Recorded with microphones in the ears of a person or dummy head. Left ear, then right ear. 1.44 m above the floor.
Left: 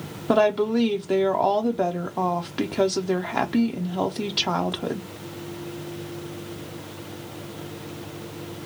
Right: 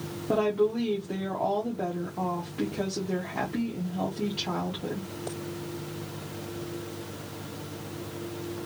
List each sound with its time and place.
0.3 s a woman speaking: 60° left (ahead or behind), 0.6 m